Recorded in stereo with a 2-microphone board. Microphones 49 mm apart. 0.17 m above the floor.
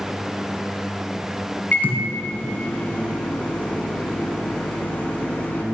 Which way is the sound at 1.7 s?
35° left (ahead or behind).